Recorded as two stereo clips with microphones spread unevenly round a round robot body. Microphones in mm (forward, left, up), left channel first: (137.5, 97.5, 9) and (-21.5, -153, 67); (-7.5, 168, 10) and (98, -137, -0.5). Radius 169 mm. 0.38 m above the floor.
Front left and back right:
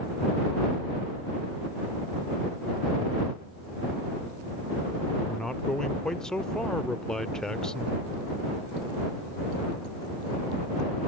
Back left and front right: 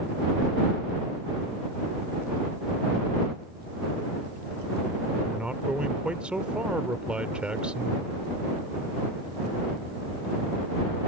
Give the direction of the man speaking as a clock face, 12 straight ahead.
12 o'clock.